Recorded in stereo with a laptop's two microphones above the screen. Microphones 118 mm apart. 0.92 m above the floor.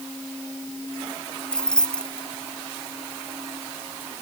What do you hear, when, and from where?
1.5 s keys jangling: 10° left (ahead or behind)